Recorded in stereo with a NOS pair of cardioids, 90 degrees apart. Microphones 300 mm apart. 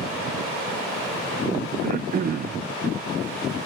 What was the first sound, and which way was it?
Throat clearing, 30° right.